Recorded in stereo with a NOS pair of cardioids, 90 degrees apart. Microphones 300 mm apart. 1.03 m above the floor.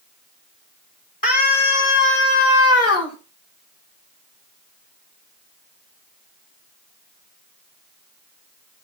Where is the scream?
30° left, 3 m; by 3.2 s 60° left, 4 m.